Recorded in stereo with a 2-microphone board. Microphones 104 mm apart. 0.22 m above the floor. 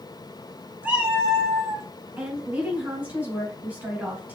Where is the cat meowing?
15° right (ahead or behind), 1.5 m; by 1.9 s 65° right (ahead or behind), 1.4 m.